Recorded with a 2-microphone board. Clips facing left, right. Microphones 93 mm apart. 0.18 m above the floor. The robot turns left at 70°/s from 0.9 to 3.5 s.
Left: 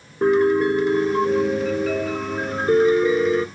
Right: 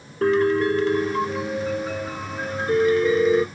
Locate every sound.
0.2 s a piano: 165° left, 0.6 m; by 3.5 s 15° right, 0.6 m